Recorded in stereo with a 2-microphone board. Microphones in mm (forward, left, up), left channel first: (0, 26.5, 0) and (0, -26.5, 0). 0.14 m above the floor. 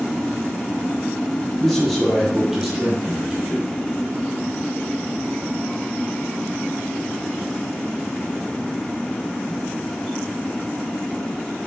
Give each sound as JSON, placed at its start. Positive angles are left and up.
{"t": 1.6, "sound": "a man speaking", "side_deg": 5, "distance_m": 3.0}